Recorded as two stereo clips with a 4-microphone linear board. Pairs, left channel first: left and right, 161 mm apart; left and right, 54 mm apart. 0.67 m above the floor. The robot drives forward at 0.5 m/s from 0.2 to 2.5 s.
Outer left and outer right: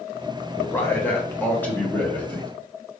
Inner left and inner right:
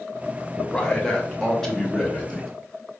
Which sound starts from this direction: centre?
A man speaking, at 0.6 s.